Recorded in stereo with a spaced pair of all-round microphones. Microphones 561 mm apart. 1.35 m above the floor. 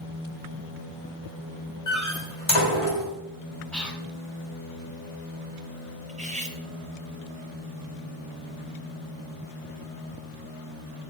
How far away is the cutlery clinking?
About 1.0 m.